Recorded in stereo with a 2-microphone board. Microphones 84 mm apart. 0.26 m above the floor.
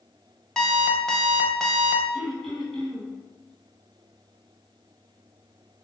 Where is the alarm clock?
10° left (ahead or behind), 0.7 m.